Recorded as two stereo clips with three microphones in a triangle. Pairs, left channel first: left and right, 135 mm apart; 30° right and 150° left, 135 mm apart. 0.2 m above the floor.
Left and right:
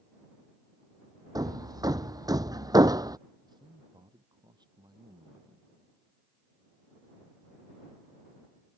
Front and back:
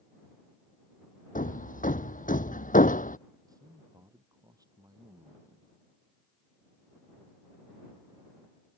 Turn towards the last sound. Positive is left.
turn(degrees=-150)